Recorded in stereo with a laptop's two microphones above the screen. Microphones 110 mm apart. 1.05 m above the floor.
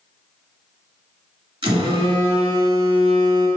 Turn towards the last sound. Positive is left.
turn(degrees=-45)  # may be behind; listen again after turning